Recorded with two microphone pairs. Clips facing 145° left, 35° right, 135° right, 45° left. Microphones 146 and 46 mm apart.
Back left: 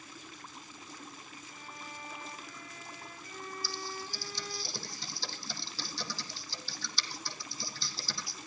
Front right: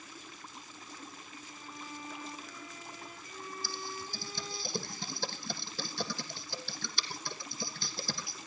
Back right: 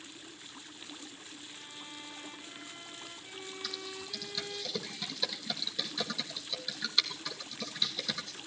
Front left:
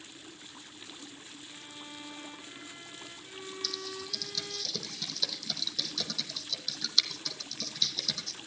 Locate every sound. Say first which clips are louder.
1.5 s a violin: front right 3 dB, front left 2 dB; 25° right, 1.9 m
3.6 s typing on a keyboard: back left 1 dB, front left 3 dB; 65° right, 1.2 m